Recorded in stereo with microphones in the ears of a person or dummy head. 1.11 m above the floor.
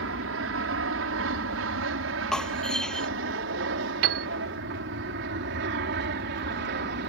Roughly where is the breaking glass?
Centre.